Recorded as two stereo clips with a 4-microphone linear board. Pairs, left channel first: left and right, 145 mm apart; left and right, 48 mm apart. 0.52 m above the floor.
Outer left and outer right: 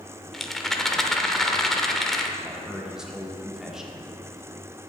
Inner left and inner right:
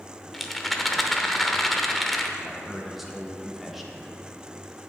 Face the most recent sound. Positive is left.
turn(degrees=-5)  # may be behind; listen again after turning